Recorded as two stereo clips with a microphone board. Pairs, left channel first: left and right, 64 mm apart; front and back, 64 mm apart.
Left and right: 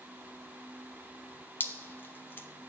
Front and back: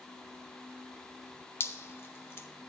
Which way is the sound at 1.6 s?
40° left.